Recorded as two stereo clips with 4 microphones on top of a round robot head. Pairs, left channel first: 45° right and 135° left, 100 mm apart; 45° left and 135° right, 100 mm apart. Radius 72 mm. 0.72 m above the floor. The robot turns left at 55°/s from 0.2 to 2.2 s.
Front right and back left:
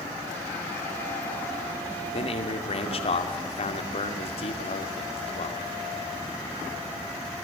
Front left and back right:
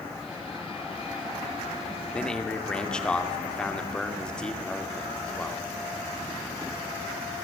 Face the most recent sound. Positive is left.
turn(degrees=-35)